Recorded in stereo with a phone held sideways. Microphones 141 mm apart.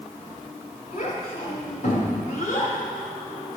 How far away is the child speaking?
About 6 m.